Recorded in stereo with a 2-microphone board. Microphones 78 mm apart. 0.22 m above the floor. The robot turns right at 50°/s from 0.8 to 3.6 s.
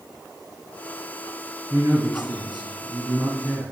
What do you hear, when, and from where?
1.7 s a man speaking: 115° right, 3.5 m; by 3.7 s 20° right, 3.5 m